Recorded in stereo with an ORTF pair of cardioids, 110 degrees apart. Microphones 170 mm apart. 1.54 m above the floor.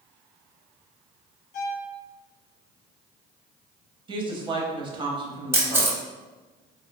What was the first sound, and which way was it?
A violin, 55° left.